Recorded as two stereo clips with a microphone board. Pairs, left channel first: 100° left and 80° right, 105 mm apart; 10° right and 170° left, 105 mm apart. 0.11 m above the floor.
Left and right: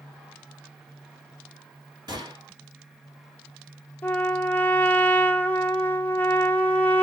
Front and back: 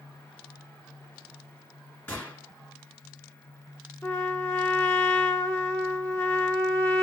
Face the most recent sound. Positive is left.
turn(degrees=40)